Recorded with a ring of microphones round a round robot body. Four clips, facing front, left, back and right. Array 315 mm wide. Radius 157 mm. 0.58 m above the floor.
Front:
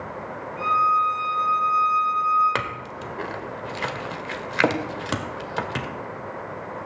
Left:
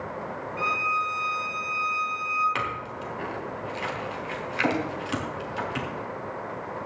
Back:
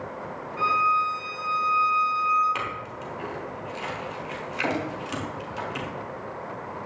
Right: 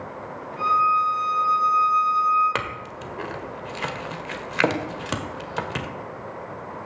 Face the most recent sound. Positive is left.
turn(degrees=-40)